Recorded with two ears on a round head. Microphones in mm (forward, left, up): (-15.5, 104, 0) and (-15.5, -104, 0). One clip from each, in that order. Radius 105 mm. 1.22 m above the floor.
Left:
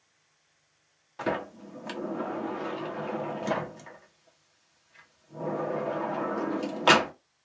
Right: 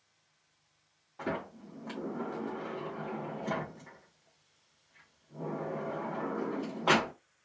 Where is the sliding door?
70° left (ahead or behind), 1.0 m.